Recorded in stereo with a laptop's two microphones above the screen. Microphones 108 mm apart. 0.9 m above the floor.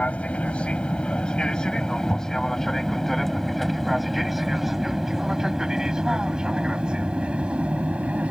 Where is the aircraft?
15° left (ahead or behind); by 8.3 s 10° right (ahead or behind).